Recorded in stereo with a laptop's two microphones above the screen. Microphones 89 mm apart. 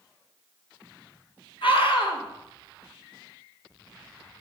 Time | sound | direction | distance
1.6 | a scream | 70° left (ahead or behind) | 2.5 m